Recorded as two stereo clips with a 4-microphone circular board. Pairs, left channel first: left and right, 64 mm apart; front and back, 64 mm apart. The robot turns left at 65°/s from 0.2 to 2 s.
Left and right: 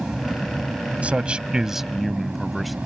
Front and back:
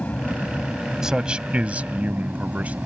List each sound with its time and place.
0.0 s an aircraft: 25° right; by 2.9 s 140° right
1.0 s a man speaking: 115° right; by 2.8 s straight behind